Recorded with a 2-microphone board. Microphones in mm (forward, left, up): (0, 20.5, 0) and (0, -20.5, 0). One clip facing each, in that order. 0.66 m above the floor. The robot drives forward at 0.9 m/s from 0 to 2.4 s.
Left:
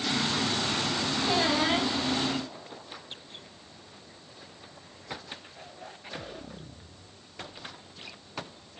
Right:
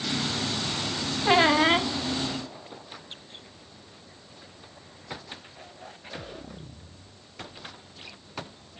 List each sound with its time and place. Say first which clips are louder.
1.2 s a squeak: right 7 dB; 60° right (ahead or behind), 0.8 m; by 1.9 s 40° right (ahead or behind), 1.1 m